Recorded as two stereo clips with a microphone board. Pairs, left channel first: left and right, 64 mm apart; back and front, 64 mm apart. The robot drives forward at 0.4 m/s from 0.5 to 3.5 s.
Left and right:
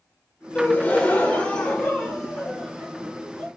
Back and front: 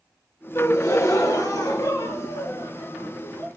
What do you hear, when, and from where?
0.6 s a gasp: 140° left, 0.6 m; by 3.5 s 170° left, 1.6 m